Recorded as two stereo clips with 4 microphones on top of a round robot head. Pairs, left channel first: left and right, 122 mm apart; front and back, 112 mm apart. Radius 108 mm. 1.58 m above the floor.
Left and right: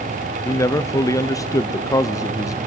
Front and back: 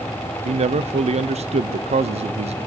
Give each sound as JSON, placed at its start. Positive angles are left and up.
{"t": 0.5, "sound": "a man speaking", "azimuth_deg": 155, "distance_m": 0.8}